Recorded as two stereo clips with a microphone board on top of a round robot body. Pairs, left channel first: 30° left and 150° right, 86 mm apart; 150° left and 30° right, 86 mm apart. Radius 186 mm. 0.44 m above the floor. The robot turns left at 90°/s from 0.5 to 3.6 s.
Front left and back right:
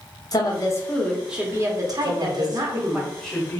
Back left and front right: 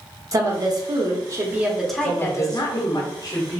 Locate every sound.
0.3 s a woman speaking: 5° left, 1.0 m; by 3.0 s 140° left, 1.0 m
2.0 s a woman speaking: 135° right, 1.2 m; by 3.6 s 85° left, 1.2 m